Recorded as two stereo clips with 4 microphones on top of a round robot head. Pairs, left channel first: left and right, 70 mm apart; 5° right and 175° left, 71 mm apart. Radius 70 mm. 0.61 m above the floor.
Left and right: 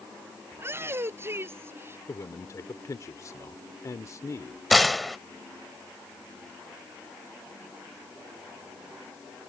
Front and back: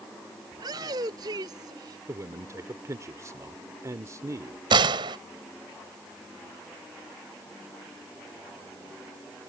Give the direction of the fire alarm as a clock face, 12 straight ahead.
I don't hear a fire alarm.